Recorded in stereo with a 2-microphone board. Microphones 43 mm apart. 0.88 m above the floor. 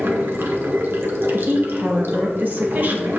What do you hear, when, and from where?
0.0 s running water: 60° right (ahead or behind), 1.2 m
1.3 s a woman speaking: 45° right (ahead or behind), 1.1 m